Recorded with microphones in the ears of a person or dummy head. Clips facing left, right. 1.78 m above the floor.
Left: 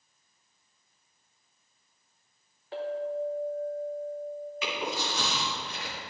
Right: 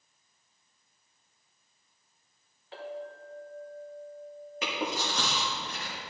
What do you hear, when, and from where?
2.7 s a clink: 35° left (ahead or behind), 1.3 m
4.6 s chewing: 40° right (ahead or behind), 2 m